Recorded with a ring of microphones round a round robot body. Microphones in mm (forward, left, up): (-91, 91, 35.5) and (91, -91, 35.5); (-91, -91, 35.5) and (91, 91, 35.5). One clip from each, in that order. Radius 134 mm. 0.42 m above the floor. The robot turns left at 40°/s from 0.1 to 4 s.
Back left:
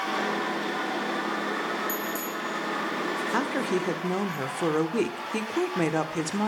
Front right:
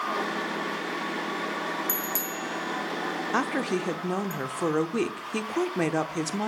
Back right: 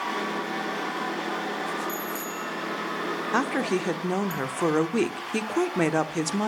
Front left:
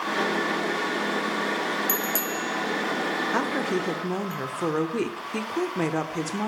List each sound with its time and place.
1.9 s a bicycle bell: 15° left, 4.5 m; by 4.3 s 70° right, 4.5 m
3.3 s a woman speaking: 85° right, 0.9 m; by 6.5 s 115° right, 0.9 m